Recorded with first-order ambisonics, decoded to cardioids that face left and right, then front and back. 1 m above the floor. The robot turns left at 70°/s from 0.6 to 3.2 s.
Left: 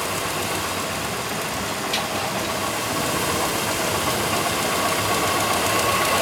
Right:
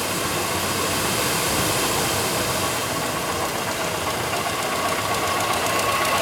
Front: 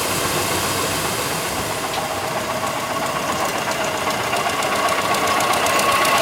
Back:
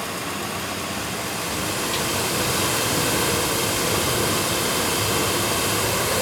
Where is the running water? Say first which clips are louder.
Right 1 dB, front 7 dB; 15° right, 1.4 m; by 6.2 s 165° left, 1.4 m.